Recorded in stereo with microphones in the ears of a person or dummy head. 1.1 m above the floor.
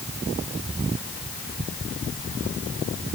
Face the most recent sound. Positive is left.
No sound to turn to.